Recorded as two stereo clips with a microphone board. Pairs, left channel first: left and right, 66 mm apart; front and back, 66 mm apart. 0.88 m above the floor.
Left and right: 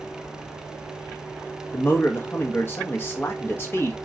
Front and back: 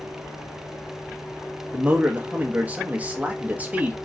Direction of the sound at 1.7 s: 125° left.